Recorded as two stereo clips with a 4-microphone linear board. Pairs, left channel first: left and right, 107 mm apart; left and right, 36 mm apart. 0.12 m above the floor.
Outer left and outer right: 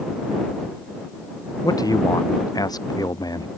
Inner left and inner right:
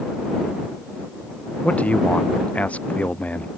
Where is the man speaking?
35° left (ahead or behind); by 3.5 s 40° left (ahead or behind).